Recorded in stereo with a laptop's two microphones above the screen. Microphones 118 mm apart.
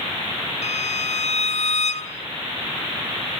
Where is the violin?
80° left, 1.6 m.